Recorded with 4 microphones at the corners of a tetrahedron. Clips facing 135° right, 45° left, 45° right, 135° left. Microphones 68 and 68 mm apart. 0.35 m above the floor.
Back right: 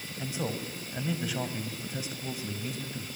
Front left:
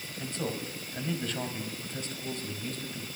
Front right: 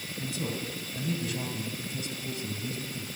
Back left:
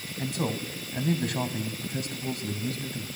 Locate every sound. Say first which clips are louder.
0.2 s a man speaking: back right 1 dB, back left 4 dB; 145° left, 2.5 m